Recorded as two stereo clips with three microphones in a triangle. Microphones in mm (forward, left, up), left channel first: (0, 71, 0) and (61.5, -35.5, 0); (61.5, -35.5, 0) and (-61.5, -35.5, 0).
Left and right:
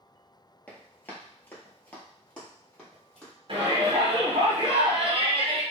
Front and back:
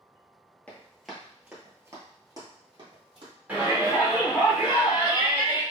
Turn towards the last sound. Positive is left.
turn(degrees=-105)